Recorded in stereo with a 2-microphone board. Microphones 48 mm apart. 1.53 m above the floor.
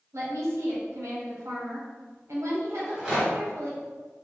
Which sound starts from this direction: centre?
A rattle, at 2.8 s.